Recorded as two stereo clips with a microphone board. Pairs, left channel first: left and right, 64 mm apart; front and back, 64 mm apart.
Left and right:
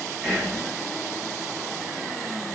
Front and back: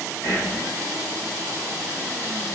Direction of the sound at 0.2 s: Straight ahead.